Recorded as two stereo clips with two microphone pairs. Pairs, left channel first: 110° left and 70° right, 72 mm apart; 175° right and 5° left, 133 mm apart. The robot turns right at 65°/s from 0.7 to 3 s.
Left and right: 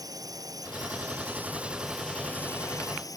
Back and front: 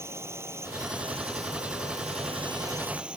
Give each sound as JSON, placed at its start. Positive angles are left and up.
{"t": 0.0, "sound": "a drone", "azimuth_deg": -60}